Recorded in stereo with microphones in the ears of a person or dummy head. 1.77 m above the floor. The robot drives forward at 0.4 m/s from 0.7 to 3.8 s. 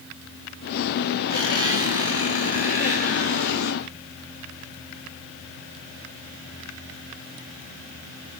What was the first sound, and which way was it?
A squeak, 25° right (ahead or behind).